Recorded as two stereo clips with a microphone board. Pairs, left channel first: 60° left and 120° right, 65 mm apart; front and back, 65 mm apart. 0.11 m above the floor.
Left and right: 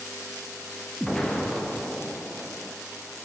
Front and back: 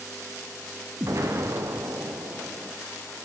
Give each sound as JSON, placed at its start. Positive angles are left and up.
{"t": 1.0, "sound": "an explosion", "azimuth_deg": 140, "distance_m": 3.5}